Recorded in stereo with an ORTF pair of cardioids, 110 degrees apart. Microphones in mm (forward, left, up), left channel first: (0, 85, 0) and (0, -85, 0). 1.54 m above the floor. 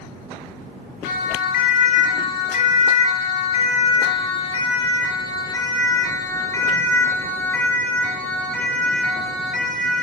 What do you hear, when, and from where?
1.0 s a siren: 65° left, 6.5 m; by 10.0 s straight ahead, 10.5 m